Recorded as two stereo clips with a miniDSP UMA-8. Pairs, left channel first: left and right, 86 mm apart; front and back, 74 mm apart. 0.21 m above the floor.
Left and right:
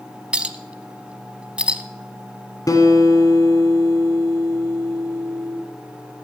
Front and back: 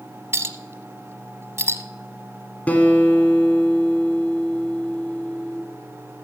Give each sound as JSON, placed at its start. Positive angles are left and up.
{"t": 0.3, "sound": "a clink", "azimuth_deg": -160, "distance_m": 0.7}
{"t": 2.7, "sound": "a guitar", "azimuth_deg": 65, "distance_m": 1.7}